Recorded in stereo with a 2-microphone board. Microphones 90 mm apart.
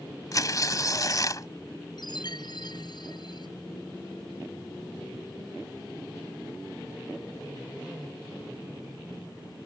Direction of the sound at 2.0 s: 55° left (ahead or behind).